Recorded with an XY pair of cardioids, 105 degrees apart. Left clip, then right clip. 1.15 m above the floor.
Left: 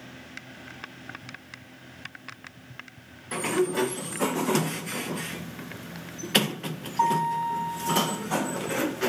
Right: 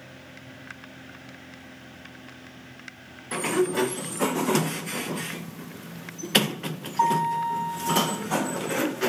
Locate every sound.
3.3 s a sliding door: 15° right